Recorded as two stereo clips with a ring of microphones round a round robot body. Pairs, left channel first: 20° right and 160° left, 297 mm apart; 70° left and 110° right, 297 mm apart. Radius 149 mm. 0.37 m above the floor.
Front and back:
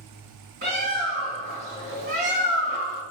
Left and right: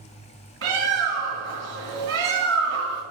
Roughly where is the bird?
Behind right.